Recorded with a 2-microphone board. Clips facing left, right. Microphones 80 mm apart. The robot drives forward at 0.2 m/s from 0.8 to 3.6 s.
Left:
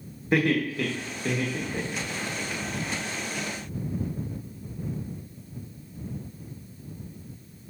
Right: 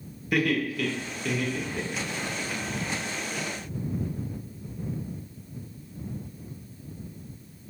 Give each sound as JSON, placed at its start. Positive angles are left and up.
{"t": 0.3, "sound": "laughter", "side_deg": 30, "distance_m": 1.0}